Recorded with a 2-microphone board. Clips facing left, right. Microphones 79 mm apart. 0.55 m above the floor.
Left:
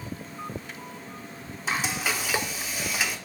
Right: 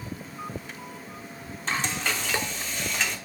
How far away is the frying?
About 0.9 m.